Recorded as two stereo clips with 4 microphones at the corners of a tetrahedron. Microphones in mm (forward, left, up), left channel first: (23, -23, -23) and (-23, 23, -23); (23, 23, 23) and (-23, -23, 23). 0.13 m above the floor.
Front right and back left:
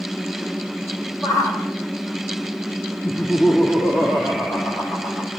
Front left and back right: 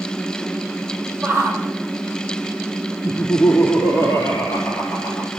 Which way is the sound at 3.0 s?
5° right.